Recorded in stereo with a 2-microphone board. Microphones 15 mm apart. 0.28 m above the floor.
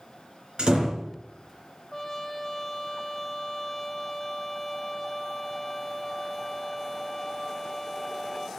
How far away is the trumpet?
About 1.6 m.